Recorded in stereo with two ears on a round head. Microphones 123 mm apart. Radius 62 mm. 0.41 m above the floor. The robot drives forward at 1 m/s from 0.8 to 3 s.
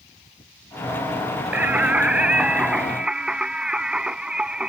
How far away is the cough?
I don't hear a cough.